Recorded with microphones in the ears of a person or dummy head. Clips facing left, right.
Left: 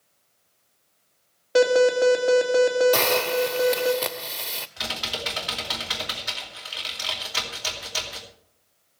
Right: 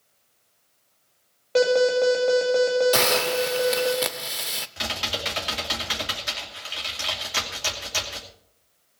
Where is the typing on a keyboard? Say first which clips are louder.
Right 2 dB; 40° right (ahead or behind), 2.5 m.